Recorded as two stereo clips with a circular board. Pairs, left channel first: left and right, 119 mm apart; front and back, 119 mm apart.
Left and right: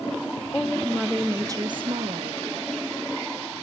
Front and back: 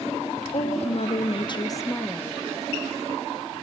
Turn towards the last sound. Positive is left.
turn(degrees=-90)